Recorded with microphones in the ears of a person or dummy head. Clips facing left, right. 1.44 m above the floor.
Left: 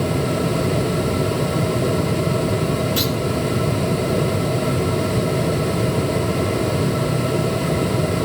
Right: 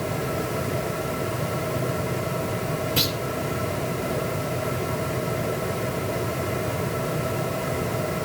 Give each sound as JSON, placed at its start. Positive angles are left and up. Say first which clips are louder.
{"t": 3.0, "sound": "a clunk", "louder": "left 6 dB", "side_deg": 15, "distance_m": 4.5}